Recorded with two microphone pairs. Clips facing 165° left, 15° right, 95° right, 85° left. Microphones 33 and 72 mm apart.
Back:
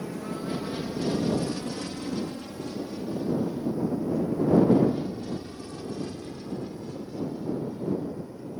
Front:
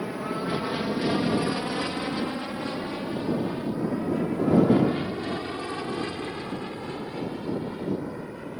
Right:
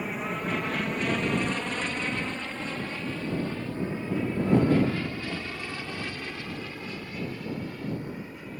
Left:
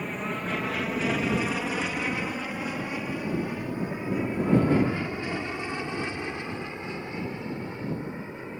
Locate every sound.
0.0 s an aircraft: 15° right; by 8.6 s 20° left